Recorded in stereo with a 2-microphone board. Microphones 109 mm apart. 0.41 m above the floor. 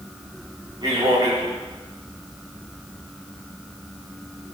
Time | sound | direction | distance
0.8 | a man speaking | 50° right (ahead or behind) | 3 m